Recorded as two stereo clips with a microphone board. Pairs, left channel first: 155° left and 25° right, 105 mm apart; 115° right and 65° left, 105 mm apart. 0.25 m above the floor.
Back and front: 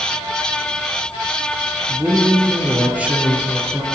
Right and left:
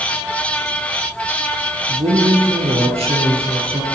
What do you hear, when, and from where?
1.9 s a man speaking: 55° left, 5.5 m